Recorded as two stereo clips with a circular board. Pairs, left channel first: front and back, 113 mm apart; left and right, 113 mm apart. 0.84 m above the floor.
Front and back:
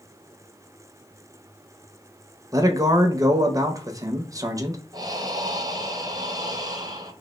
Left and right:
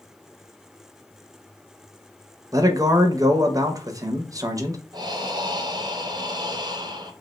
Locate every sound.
2.5 s a man speaking: 135° right, 0.5 m
4.9 s breathing: 135° right, 0.5 m